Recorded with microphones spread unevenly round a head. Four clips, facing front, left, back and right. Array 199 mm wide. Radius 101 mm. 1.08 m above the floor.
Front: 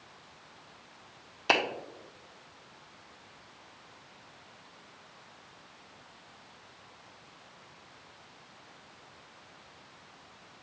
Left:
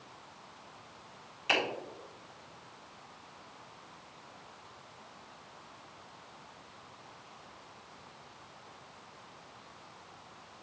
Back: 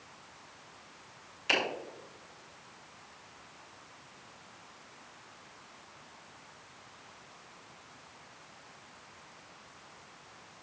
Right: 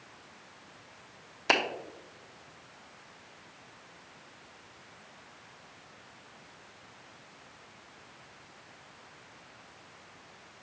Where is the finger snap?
40° right, 1.0 m.